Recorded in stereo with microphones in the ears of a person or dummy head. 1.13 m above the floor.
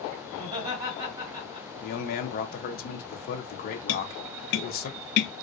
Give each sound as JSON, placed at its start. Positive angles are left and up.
{"t": 0.3, "sound": "laughter", "side_deg": -25, "distance_m": 2.5}
{"t": 1.8, "sound": "a man speaking", "side_deg": 45, "distance_m": 0.7}
{"t": 3.9, "sound": "tapping", "side_deg": 55, "distance_m": 0.5}